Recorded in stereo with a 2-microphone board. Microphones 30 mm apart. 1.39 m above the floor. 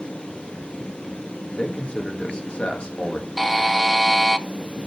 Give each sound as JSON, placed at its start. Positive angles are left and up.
{"t": 1.6, "sound": "a man speaking", "side_deg": 30, "distance_m": 1.5}
{"t": 3.4, "sound": "a buzzer", "side_deg": 0, "distance_m": 0.6}